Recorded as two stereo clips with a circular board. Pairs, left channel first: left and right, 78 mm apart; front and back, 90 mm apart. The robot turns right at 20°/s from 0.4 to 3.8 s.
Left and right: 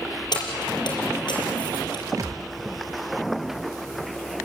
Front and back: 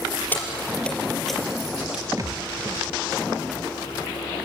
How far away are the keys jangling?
About 4.5 m.